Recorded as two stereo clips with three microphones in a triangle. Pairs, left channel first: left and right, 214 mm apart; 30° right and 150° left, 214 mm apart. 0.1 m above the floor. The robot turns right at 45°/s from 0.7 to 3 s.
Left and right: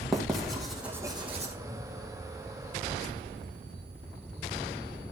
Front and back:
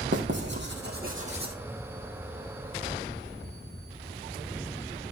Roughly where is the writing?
Behind.